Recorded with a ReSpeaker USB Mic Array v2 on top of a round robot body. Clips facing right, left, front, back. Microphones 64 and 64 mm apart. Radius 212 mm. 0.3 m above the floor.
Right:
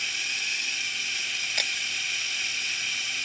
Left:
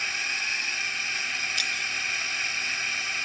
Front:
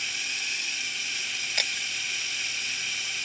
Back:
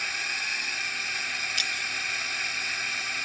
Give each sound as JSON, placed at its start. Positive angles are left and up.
{"t": 0.0, "sound": "a drone", "azimuth_deg": 140}
{"t": 1.6, "sound": "breaking glass", "azimuth_deg": -45}